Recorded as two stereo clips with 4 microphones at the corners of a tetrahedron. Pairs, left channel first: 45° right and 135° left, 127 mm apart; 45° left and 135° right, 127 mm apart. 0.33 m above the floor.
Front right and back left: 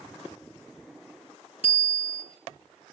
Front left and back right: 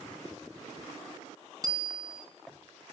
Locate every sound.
1.6 s a bicycle bell: 75° right, 2.5 m